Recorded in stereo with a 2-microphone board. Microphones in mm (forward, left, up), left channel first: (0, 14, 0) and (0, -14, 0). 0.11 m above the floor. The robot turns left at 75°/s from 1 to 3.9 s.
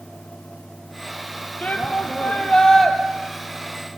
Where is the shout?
105° left, 3 m; by 3.0 s 5° left, 3 m.